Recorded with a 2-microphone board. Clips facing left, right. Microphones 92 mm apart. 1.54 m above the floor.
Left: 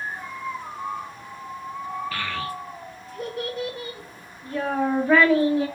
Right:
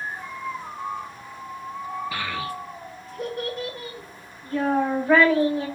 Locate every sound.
2.1 s a child speaking: 15° right (ahead or behind), 0.7 m; by 5.7 s 10° left (ahead or behind), 1.7 m